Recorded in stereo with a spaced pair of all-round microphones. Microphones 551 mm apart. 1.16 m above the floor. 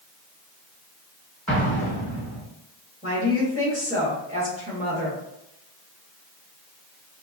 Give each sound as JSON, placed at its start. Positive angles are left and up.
{"t": 1.5, "sound": "an explosion", "side_deg": 5, "distance_m": 1.7}
{"t": 3.0, "sound": "a woman speaking", "side_deg": -15, "distance_m": 1.7}